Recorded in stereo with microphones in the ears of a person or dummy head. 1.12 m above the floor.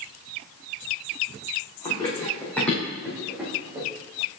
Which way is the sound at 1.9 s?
25° left (ahead or behind).